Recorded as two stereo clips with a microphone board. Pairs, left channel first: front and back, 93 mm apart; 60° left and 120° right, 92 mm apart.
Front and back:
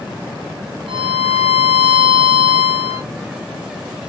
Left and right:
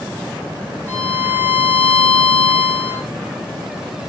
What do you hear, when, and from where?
0.9 s a violin: 170° left, 2 m